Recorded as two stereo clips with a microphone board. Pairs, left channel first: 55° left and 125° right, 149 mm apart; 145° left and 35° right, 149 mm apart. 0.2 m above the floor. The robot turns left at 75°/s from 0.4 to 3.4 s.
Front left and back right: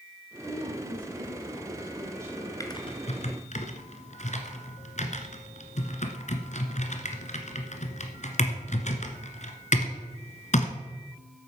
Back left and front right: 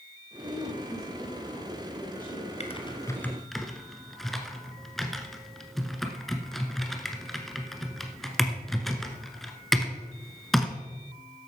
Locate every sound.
0.4 s a woman speaking: 60° right, 7.5 m; by 2.5 s 145° left, 7.5 m
2.6 s typing on a keyboard: 115° left, 1.4 m; by 10.7 s 55° left, 1.4 m